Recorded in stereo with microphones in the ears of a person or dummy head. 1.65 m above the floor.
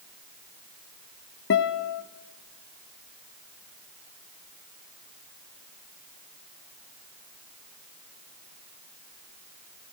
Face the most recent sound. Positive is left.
turn(degrees=55)  # may be behind; listen again after turning